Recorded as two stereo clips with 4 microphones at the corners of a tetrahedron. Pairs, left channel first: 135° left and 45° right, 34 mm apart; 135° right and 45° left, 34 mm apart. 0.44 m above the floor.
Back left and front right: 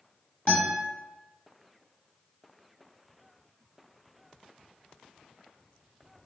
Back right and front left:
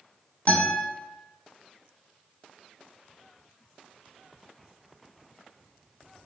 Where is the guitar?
175° right, 1.5 m.